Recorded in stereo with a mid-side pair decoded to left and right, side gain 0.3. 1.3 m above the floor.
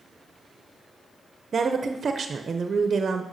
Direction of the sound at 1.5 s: 55° right.